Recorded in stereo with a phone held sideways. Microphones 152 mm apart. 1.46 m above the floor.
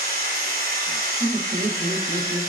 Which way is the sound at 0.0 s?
80° right.